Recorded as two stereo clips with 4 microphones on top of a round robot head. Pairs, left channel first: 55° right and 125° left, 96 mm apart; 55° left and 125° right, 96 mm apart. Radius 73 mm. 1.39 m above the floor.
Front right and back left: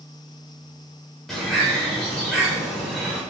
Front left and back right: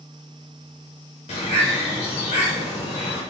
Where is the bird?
30° left, 1.2 m.